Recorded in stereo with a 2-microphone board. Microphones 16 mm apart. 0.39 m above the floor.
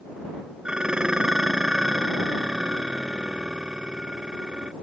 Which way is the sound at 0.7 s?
65° right (ahead or behind).